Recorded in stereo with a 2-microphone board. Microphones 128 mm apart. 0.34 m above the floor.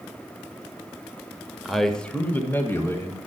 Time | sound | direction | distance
1.6 | a man speaking | centre (ahead or behind) | 0.9 m